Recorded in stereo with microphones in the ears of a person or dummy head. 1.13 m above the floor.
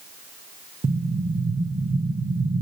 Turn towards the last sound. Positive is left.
turn(degrees=-40)  # may be behind; listen again after turning